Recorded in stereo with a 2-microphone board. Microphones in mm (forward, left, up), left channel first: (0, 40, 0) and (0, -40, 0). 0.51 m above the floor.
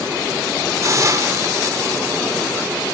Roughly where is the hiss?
Right.